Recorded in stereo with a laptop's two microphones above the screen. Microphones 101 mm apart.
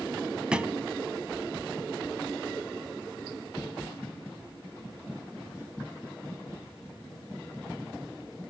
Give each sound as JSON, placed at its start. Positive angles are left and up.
{"t": 0.5, "sound": "a thud", "side_deg": -10, "distance_m": 0.8}